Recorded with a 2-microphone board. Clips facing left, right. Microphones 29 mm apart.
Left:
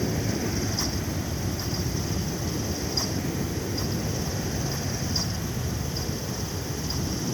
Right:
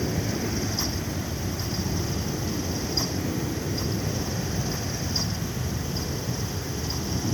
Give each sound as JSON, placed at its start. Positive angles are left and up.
{"t": 0.0, "sound": "an aircraft", "side_deg": 0}